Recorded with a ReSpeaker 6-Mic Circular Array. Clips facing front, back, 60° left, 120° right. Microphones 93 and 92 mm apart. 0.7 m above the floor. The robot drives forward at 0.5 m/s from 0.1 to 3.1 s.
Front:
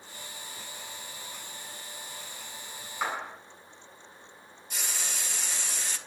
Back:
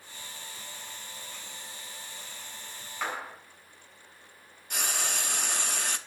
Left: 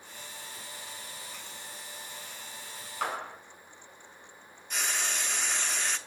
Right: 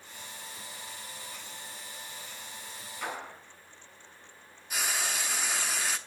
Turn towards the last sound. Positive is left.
turn(degrees=155)